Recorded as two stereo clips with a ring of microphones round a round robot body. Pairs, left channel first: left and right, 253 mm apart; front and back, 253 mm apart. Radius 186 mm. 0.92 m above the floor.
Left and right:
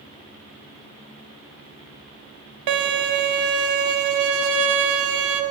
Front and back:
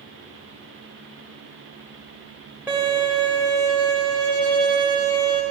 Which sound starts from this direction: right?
A violin, at 2.7 s.